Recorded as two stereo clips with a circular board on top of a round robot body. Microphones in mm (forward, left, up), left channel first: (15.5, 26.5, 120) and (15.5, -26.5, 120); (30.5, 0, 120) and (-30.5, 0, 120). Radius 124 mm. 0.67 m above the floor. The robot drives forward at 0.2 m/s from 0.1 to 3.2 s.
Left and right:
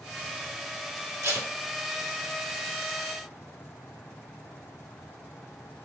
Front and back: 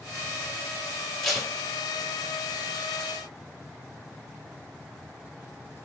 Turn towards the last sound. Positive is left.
turn(degrees=-95)